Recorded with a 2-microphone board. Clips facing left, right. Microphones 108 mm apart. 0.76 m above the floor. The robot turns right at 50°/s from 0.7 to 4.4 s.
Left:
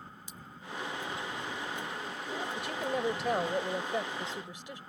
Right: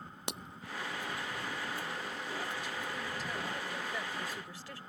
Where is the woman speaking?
70° left; by 4.8 s 160° left.